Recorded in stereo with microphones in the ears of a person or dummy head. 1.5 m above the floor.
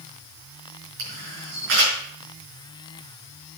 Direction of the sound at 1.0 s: 65° right (ahead or behind).